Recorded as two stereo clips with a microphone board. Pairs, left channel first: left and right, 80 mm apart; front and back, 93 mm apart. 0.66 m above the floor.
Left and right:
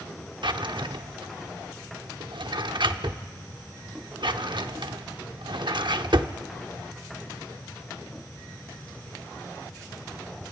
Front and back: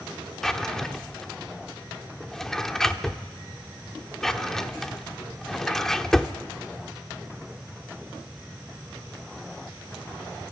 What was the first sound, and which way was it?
A drawer, 85° right.